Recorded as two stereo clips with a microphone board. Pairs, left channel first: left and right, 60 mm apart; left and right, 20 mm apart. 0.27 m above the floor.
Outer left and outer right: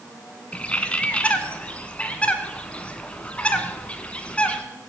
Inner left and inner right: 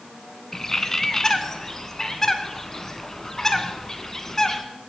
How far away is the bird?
About 1.5 m.